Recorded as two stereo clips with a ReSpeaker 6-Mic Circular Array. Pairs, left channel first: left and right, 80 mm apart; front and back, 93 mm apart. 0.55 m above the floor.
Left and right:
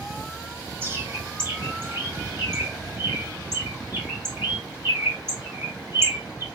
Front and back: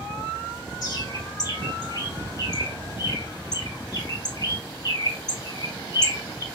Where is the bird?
35° right, 0.9 m.